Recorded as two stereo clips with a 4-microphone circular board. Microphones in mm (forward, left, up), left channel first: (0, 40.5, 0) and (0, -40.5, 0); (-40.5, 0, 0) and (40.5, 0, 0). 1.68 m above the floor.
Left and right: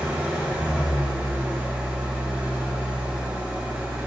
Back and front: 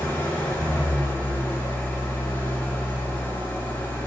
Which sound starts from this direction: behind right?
An engine running, at 0.0 s.